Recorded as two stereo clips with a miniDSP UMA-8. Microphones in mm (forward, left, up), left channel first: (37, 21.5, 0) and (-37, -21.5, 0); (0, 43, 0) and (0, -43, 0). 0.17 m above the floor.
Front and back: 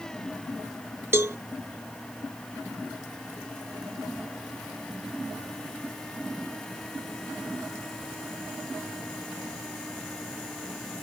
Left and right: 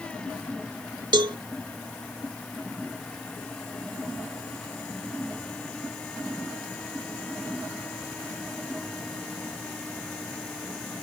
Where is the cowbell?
95° right.